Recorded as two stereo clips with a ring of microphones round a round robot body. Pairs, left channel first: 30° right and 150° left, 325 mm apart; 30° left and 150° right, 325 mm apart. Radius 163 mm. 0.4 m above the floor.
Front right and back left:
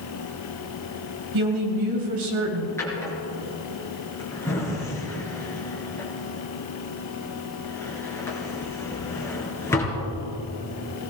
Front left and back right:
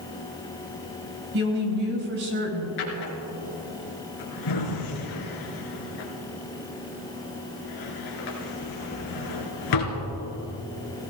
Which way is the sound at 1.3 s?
155° left.